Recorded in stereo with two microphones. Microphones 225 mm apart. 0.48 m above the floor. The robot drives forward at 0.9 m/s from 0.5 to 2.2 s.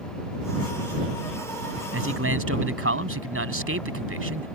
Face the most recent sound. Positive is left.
turn(degrees=-75)  # may be behind; listen again after turning